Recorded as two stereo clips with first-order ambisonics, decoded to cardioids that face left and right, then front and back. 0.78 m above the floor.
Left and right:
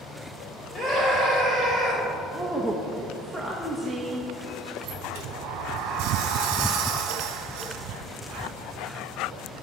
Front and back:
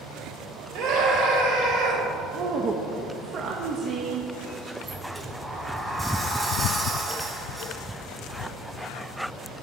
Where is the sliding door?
95° right, 1.2 m.